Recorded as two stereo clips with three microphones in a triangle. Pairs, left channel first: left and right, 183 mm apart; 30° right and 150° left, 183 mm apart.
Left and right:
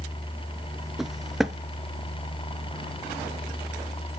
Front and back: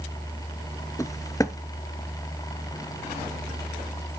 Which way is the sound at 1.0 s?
5° right.